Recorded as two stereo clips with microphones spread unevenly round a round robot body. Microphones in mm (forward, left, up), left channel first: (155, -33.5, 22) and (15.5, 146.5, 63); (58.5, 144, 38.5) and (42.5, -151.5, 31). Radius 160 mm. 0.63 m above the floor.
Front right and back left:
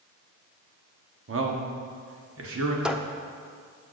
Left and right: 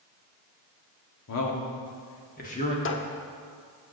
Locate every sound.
1.3 s a man speaking: 105° left, 1.5 m; by 2.8 s 155° left, 1.3 m
2.9 s a squeak: 35° left, 0.8 m